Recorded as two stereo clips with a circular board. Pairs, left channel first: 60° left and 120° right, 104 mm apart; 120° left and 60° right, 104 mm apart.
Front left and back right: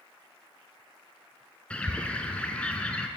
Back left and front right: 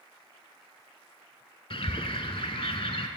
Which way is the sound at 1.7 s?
135° left.